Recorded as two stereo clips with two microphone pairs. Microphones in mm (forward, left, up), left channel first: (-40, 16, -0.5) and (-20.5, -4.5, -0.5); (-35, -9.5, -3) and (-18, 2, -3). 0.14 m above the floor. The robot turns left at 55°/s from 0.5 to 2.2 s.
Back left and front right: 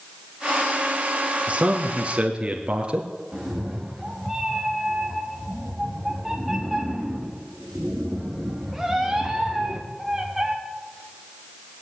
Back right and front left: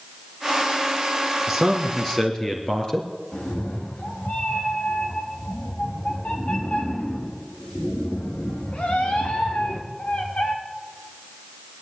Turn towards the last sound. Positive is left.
turn(degrees=-125)